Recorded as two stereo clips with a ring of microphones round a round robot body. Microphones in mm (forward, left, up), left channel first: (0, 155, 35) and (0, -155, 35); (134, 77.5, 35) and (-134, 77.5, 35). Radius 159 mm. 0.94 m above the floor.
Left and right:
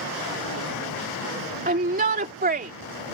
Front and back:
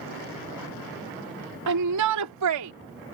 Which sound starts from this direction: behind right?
A shout, at 1.7 s.